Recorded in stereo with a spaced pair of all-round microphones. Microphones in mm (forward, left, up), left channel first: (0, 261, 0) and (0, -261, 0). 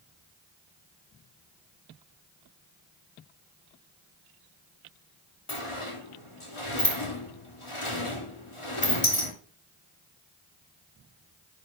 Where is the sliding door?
70° left (ahead or behind), 2.5 m.